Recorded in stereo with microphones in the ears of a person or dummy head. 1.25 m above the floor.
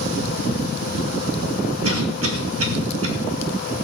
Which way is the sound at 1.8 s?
80° right.